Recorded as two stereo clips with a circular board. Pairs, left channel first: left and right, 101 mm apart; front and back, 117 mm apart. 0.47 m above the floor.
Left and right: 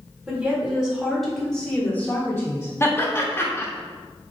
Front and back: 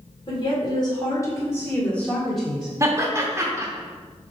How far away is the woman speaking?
About 1.5 m.